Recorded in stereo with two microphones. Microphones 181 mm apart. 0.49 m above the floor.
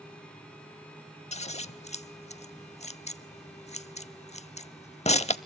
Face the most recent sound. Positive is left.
turn(degrees=40)  # may be behind; listen again after turning